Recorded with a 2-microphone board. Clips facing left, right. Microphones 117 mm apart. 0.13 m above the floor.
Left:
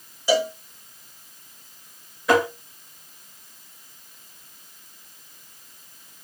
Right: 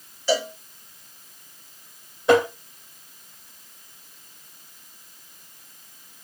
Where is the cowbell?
15° left (ahead or behind), 0.9 m.